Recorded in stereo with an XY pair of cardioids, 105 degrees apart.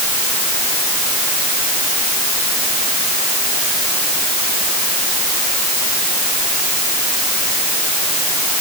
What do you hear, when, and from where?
Only background noise.